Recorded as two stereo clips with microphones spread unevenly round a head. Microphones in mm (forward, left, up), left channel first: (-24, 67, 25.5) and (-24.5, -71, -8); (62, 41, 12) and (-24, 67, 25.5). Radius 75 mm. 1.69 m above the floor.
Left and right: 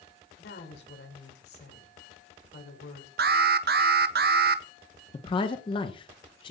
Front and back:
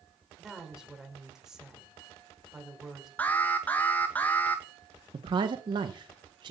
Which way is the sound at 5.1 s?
135° left.